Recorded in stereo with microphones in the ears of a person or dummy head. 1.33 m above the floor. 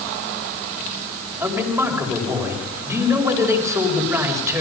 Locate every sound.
1.4 s a man speaking: 20° right (ahead or behind), 5.5 m